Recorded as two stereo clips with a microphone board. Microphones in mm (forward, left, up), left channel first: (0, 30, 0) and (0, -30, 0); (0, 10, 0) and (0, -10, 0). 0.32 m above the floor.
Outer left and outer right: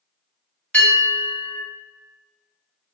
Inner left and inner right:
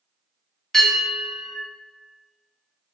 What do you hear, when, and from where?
0.7 s a bell: 20° left (ahead or behind), 1.5 m